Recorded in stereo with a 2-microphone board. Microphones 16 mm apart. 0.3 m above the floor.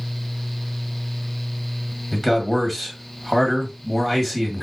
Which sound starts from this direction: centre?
A man speaking, at 2.1 s.